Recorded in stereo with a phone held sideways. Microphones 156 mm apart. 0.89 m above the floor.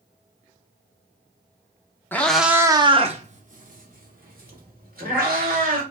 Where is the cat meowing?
15° left (ahead or behind), 0.5 m; by 5.8 s 80° right, 1.7 m.